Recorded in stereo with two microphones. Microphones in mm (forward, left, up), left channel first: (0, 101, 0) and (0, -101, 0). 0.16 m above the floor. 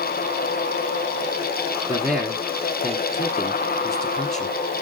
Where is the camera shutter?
No camera shutter in this recording.